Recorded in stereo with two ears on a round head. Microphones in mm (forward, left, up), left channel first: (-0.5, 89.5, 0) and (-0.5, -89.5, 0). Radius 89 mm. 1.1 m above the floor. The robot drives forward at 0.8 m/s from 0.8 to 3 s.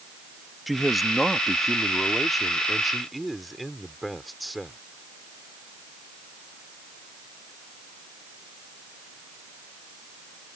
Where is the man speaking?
Centre (ahead or behind).